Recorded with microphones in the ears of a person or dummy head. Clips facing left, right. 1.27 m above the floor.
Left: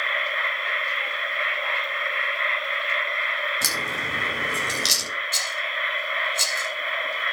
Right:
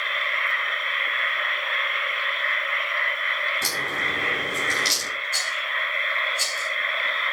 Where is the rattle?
80° left, 7 m.